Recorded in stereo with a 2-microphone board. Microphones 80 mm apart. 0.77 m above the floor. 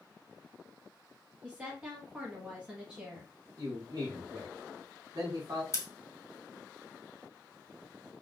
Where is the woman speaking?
15° right (ahead or behind), 0.9 m.